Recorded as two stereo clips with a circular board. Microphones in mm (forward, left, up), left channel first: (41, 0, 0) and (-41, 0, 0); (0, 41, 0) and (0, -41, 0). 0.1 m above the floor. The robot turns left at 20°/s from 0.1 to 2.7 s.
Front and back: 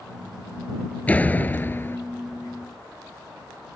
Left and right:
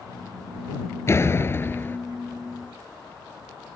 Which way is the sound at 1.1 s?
60° left.